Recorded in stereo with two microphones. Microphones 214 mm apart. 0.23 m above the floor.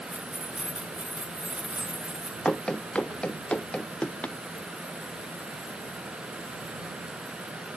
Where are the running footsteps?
5° left (ahead or behind).